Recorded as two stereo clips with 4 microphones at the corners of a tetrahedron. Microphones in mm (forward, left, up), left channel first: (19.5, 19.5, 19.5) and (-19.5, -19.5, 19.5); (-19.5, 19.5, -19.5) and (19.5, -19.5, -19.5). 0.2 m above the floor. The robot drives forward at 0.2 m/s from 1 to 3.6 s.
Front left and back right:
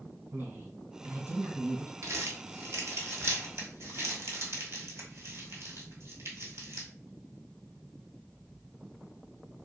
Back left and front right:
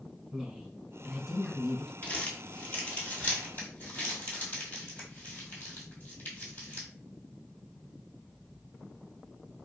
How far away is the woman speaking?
About 1.9 m.